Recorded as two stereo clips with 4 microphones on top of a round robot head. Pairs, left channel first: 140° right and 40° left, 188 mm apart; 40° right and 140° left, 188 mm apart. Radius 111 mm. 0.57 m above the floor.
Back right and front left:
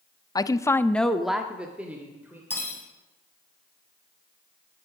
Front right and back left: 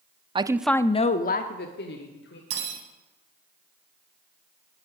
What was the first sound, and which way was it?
A woman speaking, 170° left.